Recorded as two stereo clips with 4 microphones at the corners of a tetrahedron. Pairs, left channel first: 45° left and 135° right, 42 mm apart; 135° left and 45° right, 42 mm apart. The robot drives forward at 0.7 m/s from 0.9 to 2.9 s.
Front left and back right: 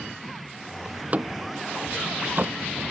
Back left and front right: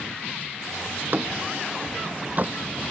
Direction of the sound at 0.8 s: 85° right.